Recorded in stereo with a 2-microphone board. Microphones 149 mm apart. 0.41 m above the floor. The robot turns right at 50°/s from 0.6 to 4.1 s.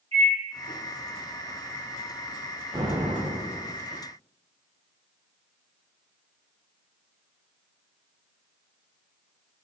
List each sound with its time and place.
0.1 s a microwave: 40° right (ahead or behind), 1.0 m
2.7 s an explosion: 25° right (ahead or behind), 0.5 m; by 3.8 s 20° right (ahead or behind), 0.5 m